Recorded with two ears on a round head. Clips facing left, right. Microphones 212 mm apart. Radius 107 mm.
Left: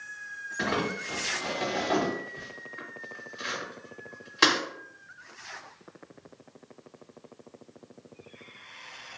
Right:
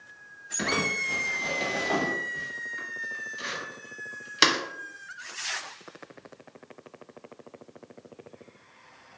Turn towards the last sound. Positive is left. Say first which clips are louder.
# left 1 dB
turn(degrees=-40)  # may be behind; listen again after turning